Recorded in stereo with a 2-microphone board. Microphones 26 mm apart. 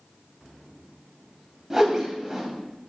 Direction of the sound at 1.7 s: 15° right (ahead or behind).